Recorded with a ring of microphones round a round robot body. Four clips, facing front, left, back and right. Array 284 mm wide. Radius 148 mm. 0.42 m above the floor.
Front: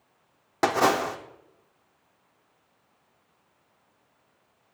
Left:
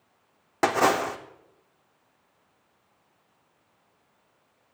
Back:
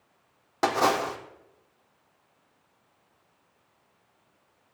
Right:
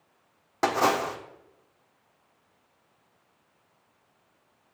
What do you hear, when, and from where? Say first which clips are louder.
0.6 s a splash: left 2 dB, front 1 dB; 50° left, 1.2 m